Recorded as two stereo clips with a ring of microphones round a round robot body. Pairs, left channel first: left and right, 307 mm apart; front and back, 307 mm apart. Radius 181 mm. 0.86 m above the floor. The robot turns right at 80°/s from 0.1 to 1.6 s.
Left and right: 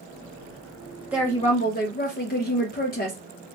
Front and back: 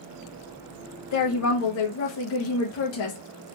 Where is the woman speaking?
5° right, 1.0 m; by 3.2 s 35° left, 1.0 m.